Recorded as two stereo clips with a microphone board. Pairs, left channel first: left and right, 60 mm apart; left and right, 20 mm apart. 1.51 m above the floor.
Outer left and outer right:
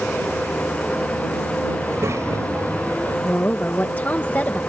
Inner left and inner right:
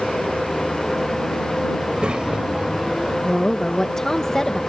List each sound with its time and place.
1.8 s a child speaking: 60° right (ahead or behind); by 3.1 s 70° right (ahead or behind)
3.2 s a woman speaking: 35° left (ahead or behind)